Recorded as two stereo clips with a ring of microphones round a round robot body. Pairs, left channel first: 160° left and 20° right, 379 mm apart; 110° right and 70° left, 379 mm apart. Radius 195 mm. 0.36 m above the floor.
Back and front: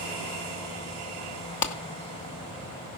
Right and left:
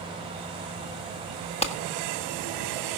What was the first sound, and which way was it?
A clap, 175° left.